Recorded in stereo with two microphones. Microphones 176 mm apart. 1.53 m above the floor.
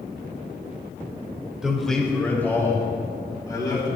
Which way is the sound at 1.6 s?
5° right (ahead or behind).